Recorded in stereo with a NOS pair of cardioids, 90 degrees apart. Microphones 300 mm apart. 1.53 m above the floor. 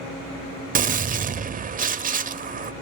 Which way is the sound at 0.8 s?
30° right.